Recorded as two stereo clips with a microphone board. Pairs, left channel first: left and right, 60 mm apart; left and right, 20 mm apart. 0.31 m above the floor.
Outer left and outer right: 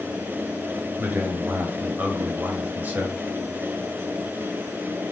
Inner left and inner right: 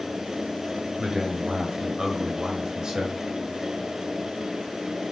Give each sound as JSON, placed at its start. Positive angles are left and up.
{"t": 1.0, "sound": "a man speaking", "side_deg": -35, "distance_m": 1.3}